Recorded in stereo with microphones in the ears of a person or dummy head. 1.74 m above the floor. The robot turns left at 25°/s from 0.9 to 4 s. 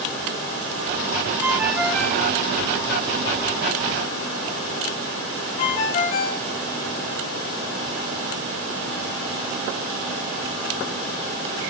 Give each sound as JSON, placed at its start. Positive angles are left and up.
{"t": 1.4, "sound": "a ringtone", "side_deg": -5, "distance_m": 0.9}